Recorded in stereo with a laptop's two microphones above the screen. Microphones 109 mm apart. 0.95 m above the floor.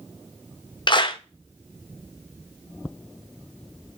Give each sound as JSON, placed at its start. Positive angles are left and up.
{"t": 0.9, "sound": "a clap", "side_deg": 45, "distance_m": 0.7}